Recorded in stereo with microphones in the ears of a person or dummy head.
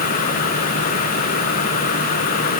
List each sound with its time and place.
Only background noise.